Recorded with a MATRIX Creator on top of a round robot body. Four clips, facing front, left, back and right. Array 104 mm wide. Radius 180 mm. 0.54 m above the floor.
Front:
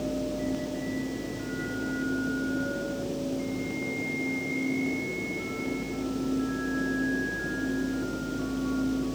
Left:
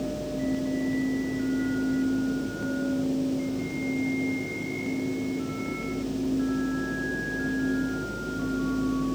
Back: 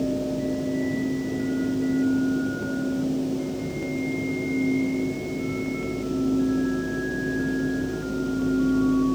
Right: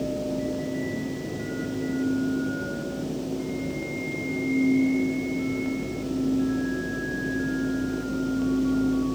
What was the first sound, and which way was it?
Only background noise.